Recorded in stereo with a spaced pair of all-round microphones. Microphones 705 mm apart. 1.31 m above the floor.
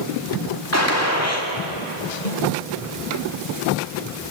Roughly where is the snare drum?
Left.